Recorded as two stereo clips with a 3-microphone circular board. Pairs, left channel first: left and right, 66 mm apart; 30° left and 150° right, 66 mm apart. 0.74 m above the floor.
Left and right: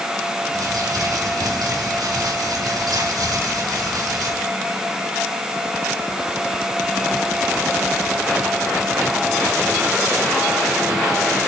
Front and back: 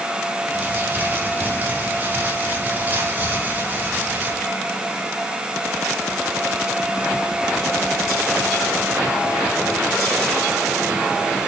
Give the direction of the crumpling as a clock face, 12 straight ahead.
3 o'clock.